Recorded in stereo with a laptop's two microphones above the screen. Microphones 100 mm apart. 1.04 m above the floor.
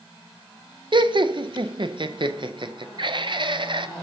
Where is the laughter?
55° right (ahead or behind), 0.5 m.